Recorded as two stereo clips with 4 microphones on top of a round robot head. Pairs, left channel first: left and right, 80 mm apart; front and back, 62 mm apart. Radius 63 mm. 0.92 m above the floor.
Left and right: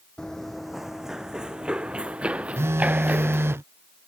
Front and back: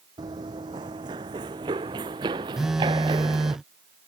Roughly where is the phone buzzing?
Right.